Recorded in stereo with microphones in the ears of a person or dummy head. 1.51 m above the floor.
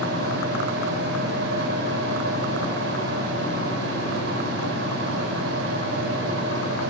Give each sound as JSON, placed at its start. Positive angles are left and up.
{"t": 0.0, "sound": "a fan", "side_deg": -65, "distance_m": 6.5}